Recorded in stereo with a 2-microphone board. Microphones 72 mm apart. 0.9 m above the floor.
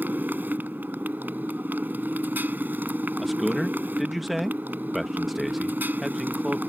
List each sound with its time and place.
0.0 s a motorcycle: 25° right (ahead or behind)
3.2 s a man speaking: centre (ahead or behind)